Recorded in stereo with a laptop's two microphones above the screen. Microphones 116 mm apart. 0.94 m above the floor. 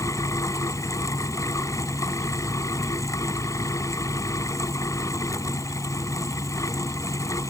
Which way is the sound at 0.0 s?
30° left (ahead or behind).